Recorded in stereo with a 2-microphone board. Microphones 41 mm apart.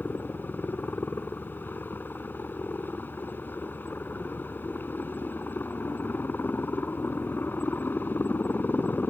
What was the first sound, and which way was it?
A helicopter, 60° left (ahead or behind).